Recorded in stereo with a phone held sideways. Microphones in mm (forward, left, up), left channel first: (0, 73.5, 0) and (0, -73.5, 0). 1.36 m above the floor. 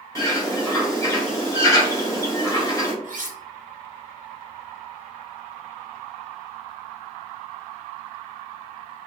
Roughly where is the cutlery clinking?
Right.